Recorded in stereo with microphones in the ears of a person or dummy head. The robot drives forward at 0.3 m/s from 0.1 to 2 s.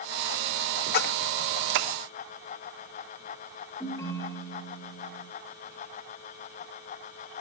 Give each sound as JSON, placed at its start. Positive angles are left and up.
{"t": 0.9, "sound": "a splash", "side_deg": 50, "distance_m": 0.8}
{"t": 3.8, "sound": "a ringtone", "side_deg": 20, "distance_m": 1.8}